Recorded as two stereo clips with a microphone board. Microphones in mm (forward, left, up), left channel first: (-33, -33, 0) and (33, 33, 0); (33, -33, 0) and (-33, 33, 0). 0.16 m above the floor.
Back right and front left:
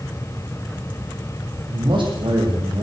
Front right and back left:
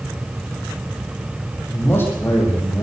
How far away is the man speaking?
About 8 m.